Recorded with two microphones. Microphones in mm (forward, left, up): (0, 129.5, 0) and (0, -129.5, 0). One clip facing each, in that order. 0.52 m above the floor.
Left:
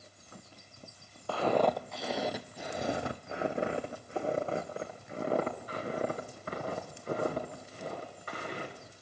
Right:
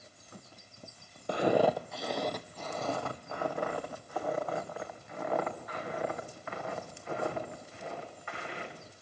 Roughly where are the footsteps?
Centre.